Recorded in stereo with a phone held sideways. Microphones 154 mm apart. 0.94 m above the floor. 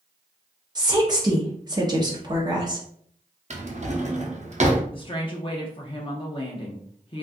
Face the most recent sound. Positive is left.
turn(degrees=35)  # may be behind; listen again after turning